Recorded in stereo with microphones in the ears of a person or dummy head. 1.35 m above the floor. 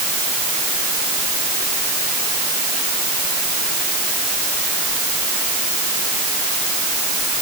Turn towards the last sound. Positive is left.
No sound to turn to.